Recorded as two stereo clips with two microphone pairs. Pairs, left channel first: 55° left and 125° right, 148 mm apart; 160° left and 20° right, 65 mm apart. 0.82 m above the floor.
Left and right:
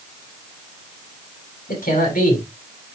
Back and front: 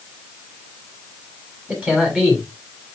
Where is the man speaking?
50° left, 7.5 m.